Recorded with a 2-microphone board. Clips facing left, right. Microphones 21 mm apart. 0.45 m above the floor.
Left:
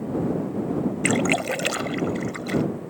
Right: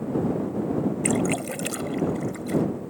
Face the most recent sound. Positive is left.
turn(degrees=35)  # may be behind; listen again after turning